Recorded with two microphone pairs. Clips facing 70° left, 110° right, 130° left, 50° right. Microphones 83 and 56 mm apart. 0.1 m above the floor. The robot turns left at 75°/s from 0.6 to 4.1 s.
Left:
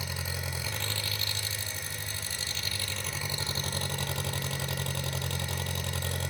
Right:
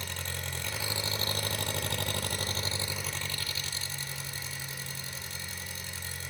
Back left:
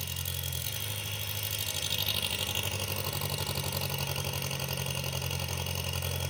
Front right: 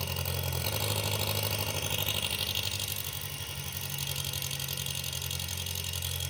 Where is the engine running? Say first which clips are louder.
Left 2 dB, front right 4 dB; 15° right, 0.8 m; by 6.3 s 85° left, 0.8 m.